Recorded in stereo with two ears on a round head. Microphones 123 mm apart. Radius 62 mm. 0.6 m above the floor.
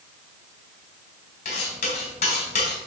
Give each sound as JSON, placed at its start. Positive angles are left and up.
{"t": 1.4, "sound": "cutlery clinking", "side_deg": 50, "distance_m": 3.0}